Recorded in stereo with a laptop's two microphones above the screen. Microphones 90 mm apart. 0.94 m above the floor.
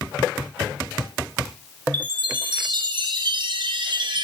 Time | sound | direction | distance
1.9 | a chime | 60° right (ahead or behind) | 0.5 m